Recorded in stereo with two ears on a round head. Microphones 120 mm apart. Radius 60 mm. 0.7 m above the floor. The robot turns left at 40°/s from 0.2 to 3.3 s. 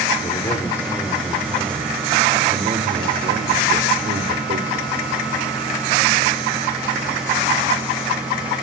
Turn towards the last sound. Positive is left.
turn(degrees=-80)